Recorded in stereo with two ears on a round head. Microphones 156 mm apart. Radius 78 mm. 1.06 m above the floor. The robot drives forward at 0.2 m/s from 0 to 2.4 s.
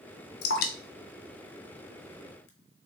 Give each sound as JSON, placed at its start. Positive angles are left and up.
{"t": 0.4, "sound": "dripping", "side_deg": 60, "distance_m": 0.6}